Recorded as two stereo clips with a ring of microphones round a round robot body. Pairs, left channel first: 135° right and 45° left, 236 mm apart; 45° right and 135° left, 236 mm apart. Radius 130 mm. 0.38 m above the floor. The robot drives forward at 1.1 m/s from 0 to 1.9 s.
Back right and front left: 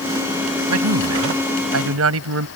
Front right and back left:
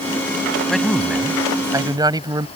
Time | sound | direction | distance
0.7 | a man speaking | 45° left | ?